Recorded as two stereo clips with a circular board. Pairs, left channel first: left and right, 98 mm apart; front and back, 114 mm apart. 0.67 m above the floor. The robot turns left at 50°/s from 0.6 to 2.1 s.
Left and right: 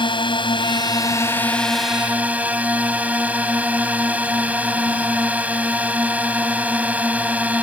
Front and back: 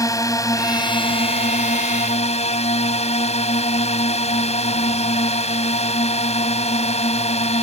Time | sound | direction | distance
0.0 | a drone | 60° left | ?